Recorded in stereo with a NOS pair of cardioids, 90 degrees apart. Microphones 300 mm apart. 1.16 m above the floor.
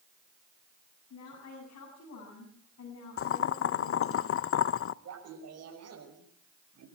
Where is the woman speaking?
55° left, 8 m.